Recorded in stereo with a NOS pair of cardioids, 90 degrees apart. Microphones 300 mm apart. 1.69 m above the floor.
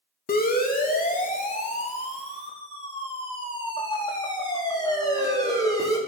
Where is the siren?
30° left, 3.5 m; by 6.0 s 10° left, 6 m.